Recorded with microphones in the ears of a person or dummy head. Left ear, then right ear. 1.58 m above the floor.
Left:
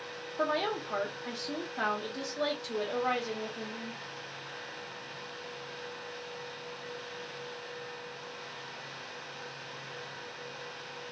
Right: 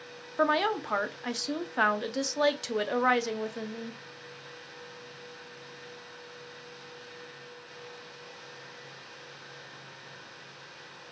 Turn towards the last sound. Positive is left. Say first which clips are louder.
# right 5 dB
turn(degrees=-70)  # may be behind; listen again after turning